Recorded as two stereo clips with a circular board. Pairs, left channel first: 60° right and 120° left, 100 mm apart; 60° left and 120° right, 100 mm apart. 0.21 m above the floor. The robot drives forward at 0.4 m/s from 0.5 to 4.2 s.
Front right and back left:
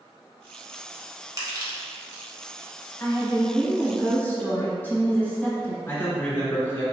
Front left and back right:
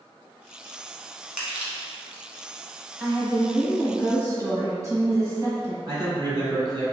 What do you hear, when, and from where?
1.4 s crushing: 160° left, 1.0 m; by 2.2 s 165° left, 1.3 m
3.0 s a woman speaking: 85° right, 1.6 m; by 5.8 s 120° right, 1.7 m
5.9 s a man speaking: 130° right, 1.8 m